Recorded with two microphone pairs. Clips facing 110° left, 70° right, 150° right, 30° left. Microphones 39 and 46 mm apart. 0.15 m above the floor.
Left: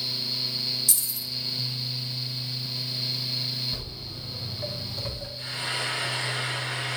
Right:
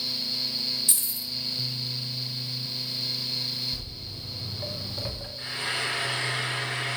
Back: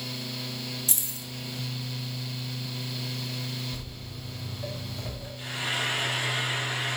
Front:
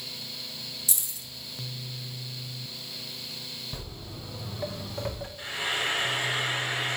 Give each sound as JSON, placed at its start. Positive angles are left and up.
{"t": 0.9, "sound": "keys jangling", "azimuth_deg": -115, "distance_m": 1.3}
{"t": 3.7, "sound": "footsteps", "azimuth_deg": 75, "distance_m": 1.2}
{"t": 5.4, "sound": "frying", "azimuth_deg": -20, "distance_m": 2.5}